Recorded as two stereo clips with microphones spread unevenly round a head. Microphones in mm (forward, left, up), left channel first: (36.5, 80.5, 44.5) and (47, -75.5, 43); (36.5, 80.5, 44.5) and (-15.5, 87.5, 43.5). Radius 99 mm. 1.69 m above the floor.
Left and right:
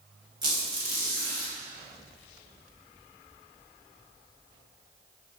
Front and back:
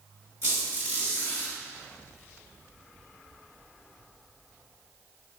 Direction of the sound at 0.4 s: 25° right.